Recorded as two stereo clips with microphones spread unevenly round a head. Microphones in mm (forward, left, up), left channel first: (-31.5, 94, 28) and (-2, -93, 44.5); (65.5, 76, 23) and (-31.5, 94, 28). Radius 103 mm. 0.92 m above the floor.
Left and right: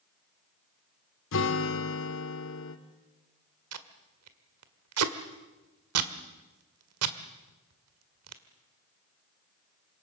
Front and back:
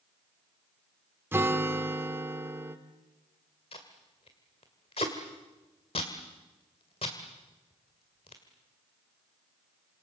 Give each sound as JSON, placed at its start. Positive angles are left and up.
{"t": 1.3, "sound": "a guitar", "azimuth_deg": 100, "distance_m": 2.5}
{"t": 3.7, "sound": "tape being pulled", "azimuth_deg": -70, "distance_m": 1.8}